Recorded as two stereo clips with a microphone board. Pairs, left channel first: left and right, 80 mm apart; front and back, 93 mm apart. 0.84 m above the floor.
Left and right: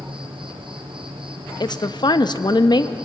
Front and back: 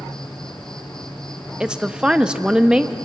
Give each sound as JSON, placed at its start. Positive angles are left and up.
{"t": 0.0, "sound": "an insect", "azimuth_deg": -85, "distance_m": 3.0}
{"t": 1.6, "sound": "a woman speaking", "azimuth_deg": 100, "distance_m": 0.7}